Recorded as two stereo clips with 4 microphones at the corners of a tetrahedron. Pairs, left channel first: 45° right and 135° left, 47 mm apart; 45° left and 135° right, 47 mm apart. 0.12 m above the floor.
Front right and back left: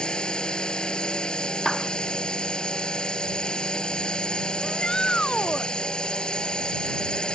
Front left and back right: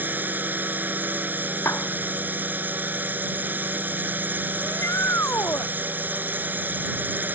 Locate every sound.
0.0 s a drone: 105° right
1.6 s a clap: 40° left
4.6 s a shout: 30° left